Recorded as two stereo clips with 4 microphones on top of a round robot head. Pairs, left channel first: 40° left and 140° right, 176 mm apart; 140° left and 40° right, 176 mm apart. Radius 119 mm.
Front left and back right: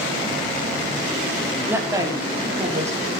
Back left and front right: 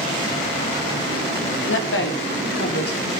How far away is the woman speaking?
About 3 m.